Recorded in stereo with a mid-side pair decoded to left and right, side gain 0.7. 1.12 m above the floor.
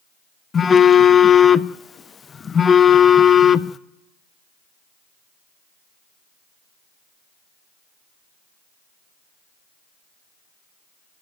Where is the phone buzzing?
25° left, 0.7 m.